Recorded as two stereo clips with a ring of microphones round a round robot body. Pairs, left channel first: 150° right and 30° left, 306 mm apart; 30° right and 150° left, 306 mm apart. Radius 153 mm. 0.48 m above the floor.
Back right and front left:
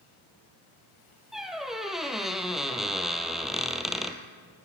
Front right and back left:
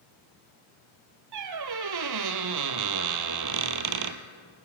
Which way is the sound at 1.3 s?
120° left.